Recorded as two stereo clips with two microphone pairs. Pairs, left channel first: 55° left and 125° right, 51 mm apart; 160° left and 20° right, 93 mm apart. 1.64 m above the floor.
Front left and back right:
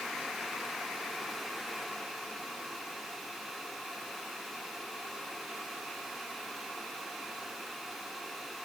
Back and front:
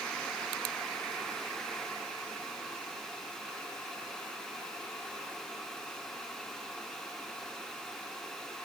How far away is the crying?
I don't hear crying.